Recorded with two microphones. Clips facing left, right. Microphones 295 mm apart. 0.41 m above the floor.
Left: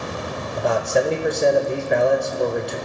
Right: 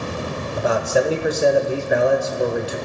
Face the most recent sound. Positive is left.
turn(degrees=-5)  # may be behind; listen again after turning